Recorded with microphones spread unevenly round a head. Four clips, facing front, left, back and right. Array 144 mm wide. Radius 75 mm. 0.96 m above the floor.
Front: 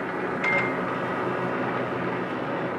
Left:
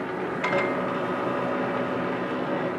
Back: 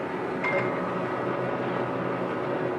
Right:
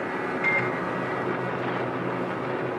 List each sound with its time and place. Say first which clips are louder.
0.4 s a microwave: left 5 dB, even; 95° left, 1.8 m